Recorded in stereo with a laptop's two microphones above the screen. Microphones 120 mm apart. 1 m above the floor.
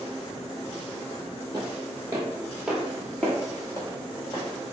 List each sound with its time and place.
1.5 s footsteps: 35° right (ahead or behind), 1.2 m; by 4.5 s 40° left (ahead or behind), 1.3 m